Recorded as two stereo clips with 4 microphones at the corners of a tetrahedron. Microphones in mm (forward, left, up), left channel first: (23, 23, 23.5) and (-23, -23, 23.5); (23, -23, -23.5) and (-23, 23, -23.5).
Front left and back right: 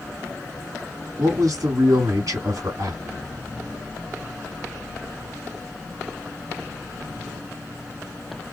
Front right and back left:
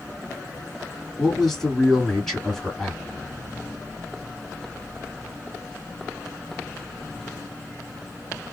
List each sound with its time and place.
1.2 s a man speaking: 130° right, 3 m